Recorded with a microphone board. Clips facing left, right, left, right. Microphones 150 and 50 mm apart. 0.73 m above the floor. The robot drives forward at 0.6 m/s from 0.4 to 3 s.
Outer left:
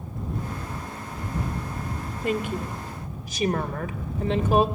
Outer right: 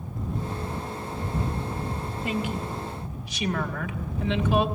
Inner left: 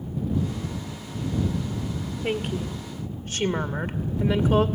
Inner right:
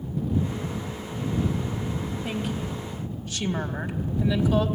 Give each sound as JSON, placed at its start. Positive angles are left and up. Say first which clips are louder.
{"t": 2.2, "sound": "a woman speaking", "louder": "outer left 3 dB, inner left 6 dB", "side_deg": 55, "distance_m": 1.9}